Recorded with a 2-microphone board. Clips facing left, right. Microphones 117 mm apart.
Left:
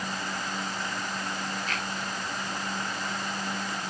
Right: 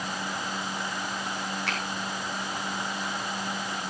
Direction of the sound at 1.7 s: 75° right (ahead or behind).